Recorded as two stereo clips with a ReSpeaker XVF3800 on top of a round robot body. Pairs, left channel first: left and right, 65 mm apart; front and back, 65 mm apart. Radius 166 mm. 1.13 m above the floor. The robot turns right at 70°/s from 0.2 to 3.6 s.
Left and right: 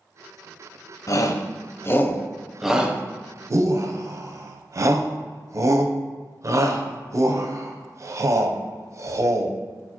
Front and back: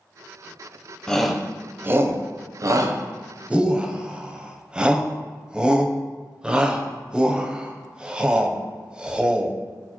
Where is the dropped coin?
I don't hear a dropped coin.